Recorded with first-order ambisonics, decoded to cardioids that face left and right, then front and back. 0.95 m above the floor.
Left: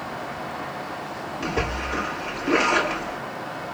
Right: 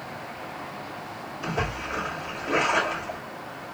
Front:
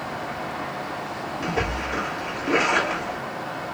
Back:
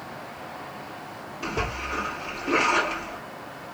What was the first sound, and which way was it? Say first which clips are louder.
A splash: left 2 dB, front 2 dB; 65° left.